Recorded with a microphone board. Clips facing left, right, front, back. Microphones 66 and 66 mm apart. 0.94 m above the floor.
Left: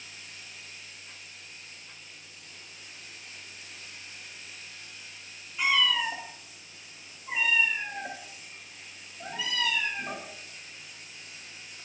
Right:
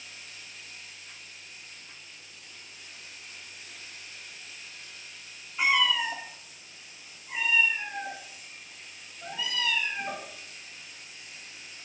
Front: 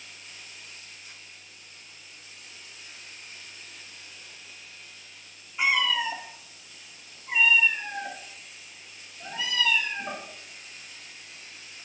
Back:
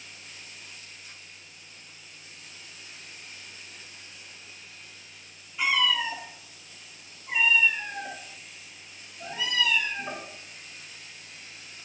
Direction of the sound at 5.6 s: 45° right.